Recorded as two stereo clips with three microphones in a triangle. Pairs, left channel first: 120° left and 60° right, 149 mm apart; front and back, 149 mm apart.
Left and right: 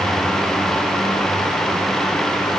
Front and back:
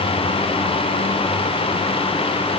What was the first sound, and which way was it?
Only background noise.